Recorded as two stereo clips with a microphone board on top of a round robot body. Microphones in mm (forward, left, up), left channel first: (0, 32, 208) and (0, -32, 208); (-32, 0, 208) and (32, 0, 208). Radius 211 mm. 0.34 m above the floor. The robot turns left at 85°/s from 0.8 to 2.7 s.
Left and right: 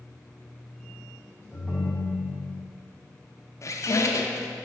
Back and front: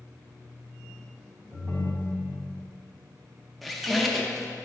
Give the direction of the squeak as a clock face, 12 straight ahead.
9 o'clock.